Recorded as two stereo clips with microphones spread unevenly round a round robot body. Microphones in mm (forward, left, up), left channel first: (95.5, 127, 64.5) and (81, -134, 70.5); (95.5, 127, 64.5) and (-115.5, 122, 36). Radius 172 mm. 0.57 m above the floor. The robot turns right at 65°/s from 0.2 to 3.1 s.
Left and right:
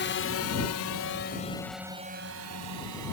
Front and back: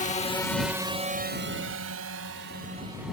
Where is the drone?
55° left; by 3.1 s 90° right.